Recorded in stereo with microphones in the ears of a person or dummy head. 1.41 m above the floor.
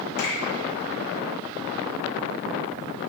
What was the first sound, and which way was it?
A finger snap, 50° left (ahead or behind).